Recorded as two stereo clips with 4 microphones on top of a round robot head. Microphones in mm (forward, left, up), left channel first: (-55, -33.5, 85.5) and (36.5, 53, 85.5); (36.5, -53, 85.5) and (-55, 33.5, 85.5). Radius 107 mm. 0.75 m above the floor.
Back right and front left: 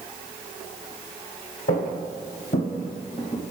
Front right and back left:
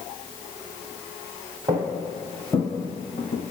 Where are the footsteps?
150° right, 1.7 m; by 3.5 s 75° right, 1.2 m.